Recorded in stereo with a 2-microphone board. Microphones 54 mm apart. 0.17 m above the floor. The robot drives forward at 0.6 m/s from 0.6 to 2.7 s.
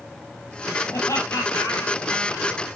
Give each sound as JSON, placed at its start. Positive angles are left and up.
{"t": 0.9, "sound": "laughter", "side_deg": 65, "distance_m": 3.0}